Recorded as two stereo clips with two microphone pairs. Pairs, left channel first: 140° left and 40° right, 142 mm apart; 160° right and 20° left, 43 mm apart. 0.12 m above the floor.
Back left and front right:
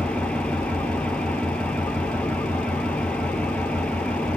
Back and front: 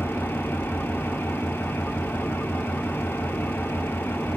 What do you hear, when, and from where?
0.0 s an engine running: 140° right, 0.7 m